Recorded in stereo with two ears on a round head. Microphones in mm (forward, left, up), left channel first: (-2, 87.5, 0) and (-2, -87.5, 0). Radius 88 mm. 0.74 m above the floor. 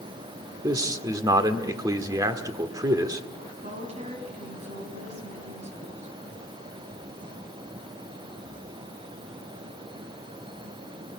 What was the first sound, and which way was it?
A man speaking, 20° right (ahead or behind).